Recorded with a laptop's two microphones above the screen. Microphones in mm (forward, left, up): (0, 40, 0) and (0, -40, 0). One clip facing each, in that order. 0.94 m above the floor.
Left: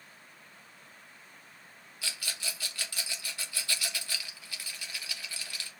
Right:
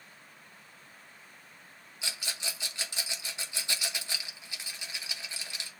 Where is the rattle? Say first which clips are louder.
Right 1 dB; 20° right (ahead or behind), 1.0 m.